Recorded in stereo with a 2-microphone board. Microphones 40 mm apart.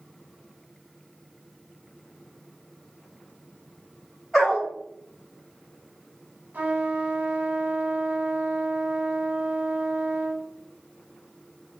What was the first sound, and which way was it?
A dog barking, 5° right (ahead or behind).